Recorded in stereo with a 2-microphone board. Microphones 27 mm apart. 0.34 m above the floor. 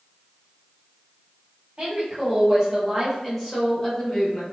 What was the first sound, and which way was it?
A woman speaking, 35° right (ahead or behind).